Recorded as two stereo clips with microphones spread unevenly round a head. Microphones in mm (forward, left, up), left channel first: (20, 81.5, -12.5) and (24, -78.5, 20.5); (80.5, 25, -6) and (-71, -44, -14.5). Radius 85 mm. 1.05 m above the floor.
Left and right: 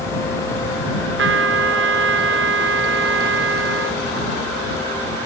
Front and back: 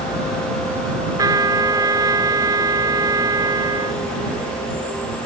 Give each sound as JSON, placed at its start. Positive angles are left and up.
{"t": 1.2, "sound": "a trumpet", "azimuth_deg": -85}